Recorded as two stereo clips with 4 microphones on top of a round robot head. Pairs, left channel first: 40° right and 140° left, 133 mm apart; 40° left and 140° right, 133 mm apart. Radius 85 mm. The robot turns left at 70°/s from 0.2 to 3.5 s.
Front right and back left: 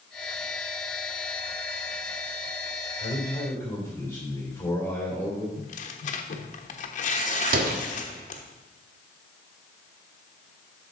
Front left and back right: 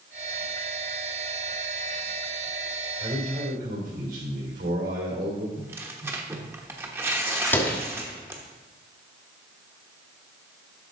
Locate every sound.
3.0 s a man speaking: 80° right, 2.5 m; by 5.5 s 115° right, 2.5 m
5.6 s tearing paper: 65° right, 1.1 m
7.5 s a door slam: 120° left, 1.4 m